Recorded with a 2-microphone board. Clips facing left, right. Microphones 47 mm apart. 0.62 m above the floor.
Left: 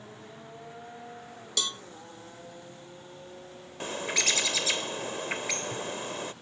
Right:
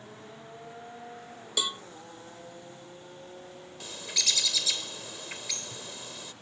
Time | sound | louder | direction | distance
1.6 | a cowbell | right 1 dB | 15° right (ahead or behind) | ?
3.8 | a bird | left 5 dB | 40° left (ahead or behind) | ?